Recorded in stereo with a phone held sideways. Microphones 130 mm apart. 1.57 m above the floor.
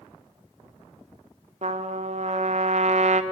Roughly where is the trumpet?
Right.